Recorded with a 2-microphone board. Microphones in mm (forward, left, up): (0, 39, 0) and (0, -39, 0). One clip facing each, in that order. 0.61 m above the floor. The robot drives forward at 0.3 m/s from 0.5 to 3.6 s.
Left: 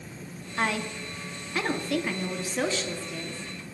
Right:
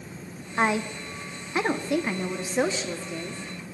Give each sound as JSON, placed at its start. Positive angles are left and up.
{"t": 0.6, "sound": "a woman speaking", "side_deg": -25, "distance_m": 0.6}